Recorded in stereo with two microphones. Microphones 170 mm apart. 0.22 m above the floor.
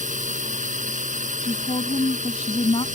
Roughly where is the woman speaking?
Left.